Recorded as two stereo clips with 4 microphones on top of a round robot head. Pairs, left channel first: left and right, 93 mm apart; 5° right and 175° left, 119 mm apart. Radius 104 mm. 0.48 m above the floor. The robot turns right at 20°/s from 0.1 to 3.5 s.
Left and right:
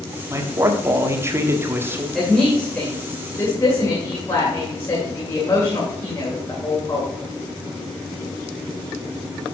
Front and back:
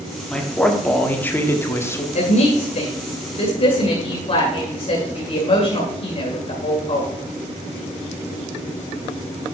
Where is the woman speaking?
Straight ahead, 2.5 m; by 7.1 s 30° left, 2.5 m.